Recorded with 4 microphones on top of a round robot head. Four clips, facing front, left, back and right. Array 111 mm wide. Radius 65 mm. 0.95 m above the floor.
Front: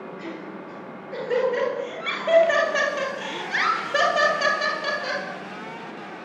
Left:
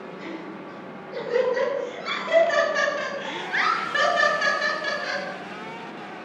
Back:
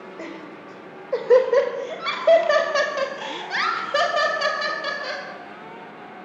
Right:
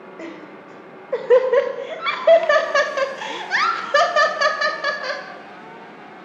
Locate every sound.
0.2 s laughter: 135° right, 5.5 m; by 5.2 s 75° right, 5.5 m